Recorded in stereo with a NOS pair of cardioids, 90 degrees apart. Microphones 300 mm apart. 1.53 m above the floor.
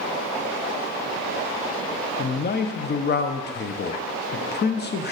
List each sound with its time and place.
2.2 s a man speaking: 35° left, 0.8 m